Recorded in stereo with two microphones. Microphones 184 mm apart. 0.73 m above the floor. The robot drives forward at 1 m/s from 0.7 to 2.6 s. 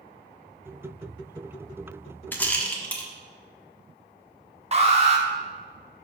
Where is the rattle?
10° left (ahead or behind), 0.7 m; by 3.1 s 5° left (ahead or behind), 0.9 m.